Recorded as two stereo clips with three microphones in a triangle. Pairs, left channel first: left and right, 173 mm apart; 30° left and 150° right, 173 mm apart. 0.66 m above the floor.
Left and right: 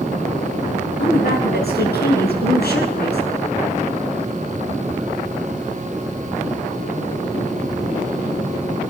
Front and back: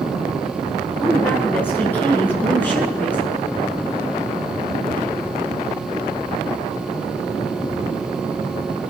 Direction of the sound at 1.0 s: 110° left.